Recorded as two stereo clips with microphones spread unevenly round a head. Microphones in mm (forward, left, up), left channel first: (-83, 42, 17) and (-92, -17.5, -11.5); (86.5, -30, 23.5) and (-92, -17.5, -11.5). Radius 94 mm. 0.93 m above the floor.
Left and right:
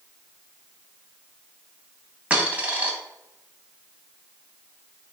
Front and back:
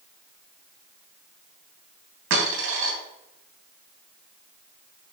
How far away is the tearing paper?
No tearing paper in this recording.